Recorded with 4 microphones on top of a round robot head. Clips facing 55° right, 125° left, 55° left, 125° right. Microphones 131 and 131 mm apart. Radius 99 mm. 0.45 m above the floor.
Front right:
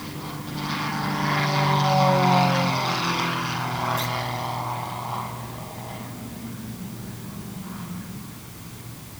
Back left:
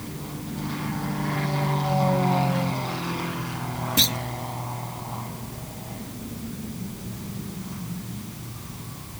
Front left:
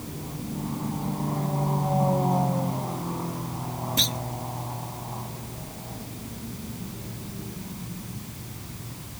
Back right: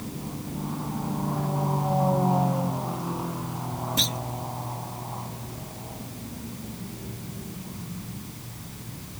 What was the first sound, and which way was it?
A clunk, 145° left.